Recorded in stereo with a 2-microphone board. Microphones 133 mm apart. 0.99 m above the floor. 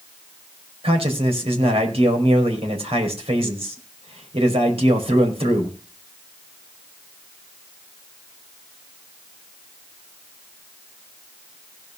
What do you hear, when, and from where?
0.8 s a man speaking: 50° right (ahead or behind), 5 m